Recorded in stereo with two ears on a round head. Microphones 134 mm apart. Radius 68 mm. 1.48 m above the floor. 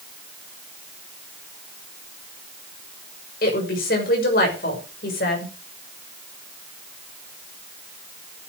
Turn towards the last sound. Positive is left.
turn(degrees=75)  # may be behind; listen again after turning